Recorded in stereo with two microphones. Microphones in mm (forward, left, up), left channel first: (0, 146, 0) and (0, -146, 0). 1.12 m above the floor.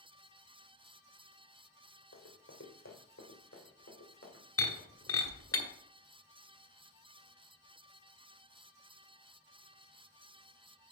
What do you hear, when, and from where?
2.1 s running footsteps: 50° left (ahead or behind), 2.5 m; by 4.4 s 45° left (ahead or behind), 4.5 m
4.6 s breaking glass: 55° left (ahead or behind), 1.7 m